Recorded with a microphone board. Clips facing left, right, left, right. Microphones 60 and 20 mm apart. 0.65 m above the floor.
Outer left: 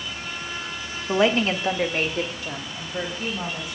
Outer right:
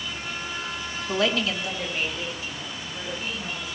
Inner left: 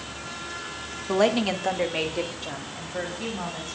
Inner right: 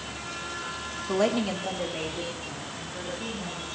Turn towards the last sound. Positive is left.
turn(degrees=70)  # may be behind; listen again after turning